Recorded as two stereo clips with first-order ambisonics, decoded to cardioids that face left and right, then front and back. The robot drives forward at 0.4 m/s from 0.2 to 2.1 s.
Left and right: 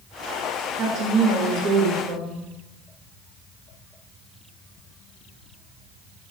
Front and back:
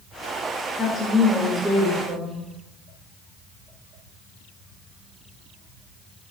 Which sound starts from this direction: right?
A woman speaking, at 0.8 s.